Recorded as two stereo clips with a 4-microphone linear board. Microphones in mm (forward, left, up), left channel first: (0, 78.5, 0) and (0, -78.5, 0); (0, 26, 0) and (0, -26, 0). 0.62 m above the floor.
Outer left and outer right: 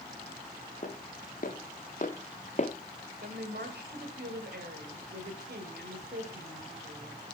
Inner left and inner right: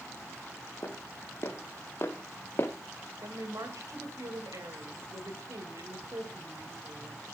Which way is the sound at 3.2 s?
75° right (ahead or behind).